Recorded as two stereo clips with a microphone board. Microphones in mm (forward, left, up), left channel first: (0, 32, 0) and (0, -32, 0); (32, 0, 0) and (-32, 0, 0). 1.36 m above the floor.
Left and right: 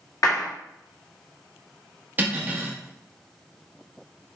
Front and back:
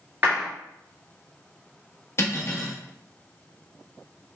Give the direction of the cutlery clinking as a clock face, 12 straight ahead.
1 o'clock.